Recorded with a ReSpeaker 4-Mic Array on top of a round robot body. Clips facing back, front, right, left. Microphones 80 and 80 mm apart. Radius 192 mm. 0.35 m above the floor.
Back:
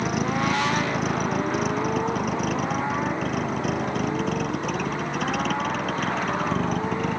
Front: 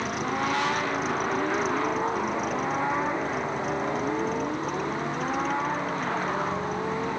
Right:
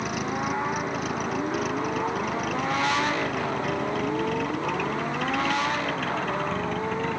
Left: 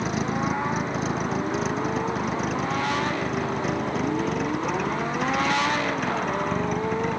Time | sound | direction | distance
0.0 | a vehicle | 150° left | ?